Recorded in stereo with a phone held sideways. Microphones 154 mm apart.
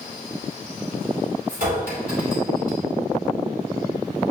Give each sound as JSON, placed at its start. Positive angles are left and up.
{"t": 1.5, "sound": "a clink", "side_deg": -70, "distance_m": 3.0}